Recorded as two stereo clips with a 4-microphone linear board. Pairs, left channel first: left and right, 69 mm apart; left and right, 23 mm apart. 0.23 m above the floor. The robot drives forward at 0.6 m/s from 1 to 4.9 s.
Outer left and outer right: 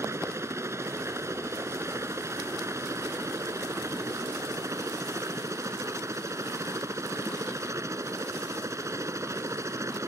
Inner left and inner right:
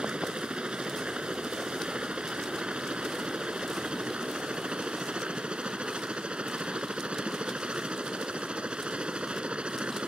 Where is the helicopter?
45° right (ahead or behind); by 10.1 s 50° right (ahead or behind).